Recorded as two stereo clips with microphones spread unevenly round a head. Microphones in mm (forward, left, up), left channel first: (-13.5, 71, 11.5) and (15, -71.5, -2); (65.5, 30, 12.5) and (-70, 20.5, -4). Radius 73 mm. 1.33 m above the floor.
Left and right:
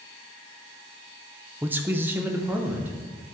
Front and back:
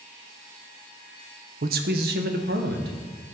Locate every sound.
1.6 s a man speaking: 155° right, 0.7 m